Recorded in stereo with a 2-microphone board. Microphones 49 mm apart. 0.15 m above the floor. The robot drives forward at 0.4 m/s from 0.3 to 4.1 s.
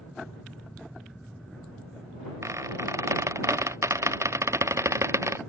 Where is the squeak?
85° right; by 5.4 s 80° right.